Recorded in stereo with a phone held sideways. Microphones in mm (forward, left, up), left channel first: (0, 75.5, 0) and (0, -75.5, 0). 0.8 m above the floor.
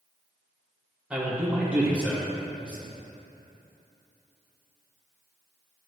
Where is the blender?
I don't hear a blender.